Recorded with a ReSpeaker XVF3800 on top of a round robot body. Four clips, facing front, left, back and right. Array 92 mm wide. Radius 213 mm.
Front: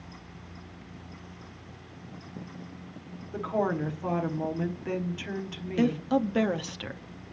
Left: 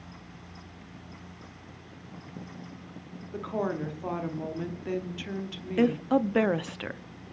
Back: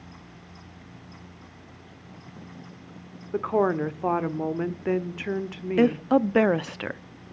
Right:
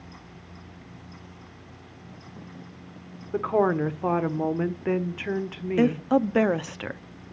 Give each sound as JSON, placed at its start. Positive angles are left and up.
{"t": 3.3, "sound": "a woman speaking", "azimuth_deg": -130, "distance_m": 1.7}
{"t": 5.8, "sound": "a woman speaking", "azimuth_deg": -160, "distance_m": 0.9}